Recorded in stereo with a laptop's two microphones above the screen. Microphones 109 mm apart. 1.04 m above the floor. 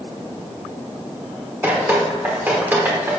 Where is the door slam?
No door slam in this recording.